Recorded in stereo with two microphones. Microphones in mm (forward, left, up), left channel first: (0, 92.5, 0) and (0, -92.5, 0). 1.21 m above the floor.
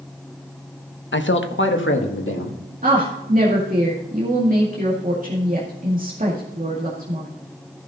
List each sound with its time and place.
1.1 s a man speaking: 70° left (ahead or behind), 0.9 m; by 2.6 s 90° left, 2 m
2.8 s a woman speaking: 45° right (ahead or behind), 2 m